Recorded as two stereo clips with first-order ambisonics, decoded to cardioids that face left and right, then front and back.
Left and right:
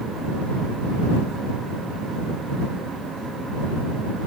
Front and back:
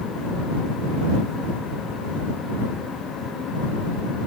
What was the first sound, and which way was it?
Only background noise.